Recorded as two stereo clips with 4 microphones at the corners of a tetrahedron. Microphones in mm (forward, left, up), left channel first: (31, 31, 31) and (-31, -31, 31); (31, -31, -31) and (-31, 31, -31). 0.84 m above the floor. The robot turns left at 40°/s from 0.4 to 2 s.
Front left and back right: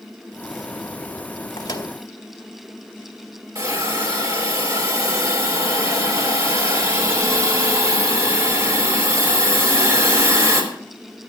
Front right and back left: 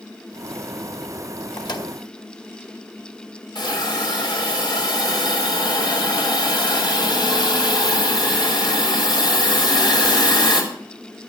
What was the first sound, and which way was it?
A microwave, straight ahead.